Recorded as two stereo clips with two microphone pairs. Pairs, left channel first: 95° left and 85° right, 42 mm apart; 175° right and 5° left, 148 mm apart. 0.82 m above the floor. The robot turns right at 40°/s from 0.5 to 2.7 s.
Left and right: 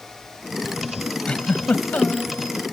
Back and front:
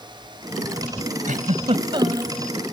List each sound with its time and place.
1.3 s a giggle: 30° left; by 2.3 s 75° left